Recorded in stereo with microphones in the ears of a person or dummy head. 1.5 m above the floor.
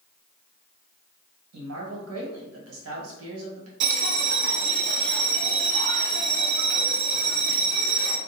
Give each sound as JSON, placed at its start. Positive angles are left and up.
{"t": 1.5, "sound": "a man speaking", "side_deg": -85, "distance_m": 1.1}
{"t": 3.8, "sound": "a bell", "side_deg": -65, "distance_m": 0.5}